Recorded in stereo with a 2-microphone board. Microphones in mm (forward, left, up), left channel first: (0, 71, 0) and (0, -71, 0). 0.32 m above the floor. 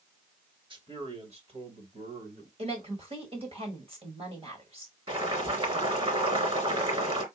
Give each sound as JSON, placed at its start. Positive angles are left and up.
{"t": 0.7, "sound": "a man speaking", "side_deg": -35, "distance_m": 1.4}
{"t": 2.6, "sound": "a woman speaking", "side_deg": -45, "distance_m": 1.9}
{"t": 5.1, "sound": "boiling", "side_deg": -40, "distance_m": 2.5}